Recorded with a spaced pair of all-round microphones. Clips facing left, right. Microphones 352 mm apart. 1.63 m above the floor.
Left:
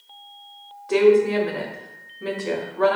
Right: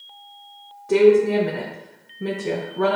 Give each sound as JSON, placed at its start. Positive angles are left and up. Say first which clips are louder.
{"t": 0.9, "sound": "a woman speaking", "louder": "right 2 dB", "side_deg": -45, "distance_m": 1.0}